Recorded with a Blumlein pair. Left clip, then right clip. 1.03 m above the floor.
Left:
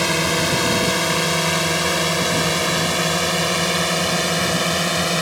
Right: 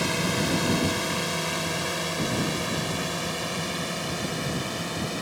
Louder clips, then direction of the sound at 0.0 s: Left 7 dB; 25° left.